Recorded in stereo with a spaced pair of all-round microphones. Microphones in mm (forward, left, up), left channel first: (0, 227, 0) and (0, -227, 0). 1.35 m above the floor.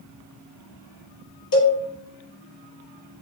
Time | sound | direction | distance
1.5 | a cowbell | 50° left (ahead or behind) | 0.7 m